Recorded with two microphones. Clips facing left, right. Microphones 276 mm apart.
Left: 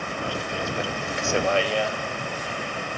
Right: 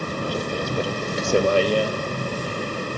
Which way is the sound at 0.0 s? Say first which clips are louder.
Right 5 dB; 45° right (ahead or behind).